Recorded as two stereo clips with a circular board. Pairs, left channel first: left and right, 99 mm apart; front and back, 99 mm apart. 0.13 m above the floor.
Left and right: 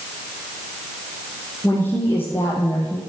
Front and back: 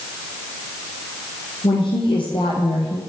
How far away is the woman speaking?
About 4 m.